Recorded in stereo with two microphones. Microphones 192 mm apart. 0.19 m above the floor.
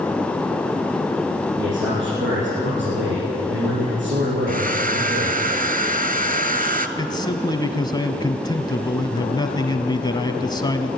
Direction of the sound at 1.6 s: 75° right (ahead or behind).